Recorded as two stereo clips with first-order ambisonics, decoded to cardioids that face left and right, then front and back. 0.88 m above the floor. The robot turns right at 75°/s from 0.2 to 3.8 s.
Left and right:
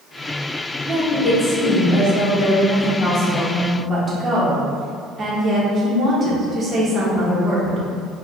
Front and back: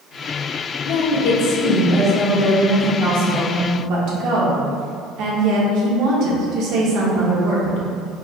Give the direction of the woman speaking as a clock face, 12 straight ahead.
1 o'clock.